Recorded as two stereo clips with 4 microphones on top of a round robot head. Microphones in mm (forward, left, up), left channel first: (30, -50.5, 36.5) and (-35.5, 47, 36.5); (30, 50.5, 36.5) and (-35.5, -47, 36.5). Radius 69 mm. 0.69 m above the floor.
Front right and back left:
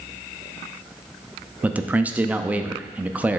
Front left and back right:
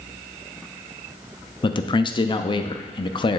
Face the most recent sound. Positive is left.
turn(degrees=55)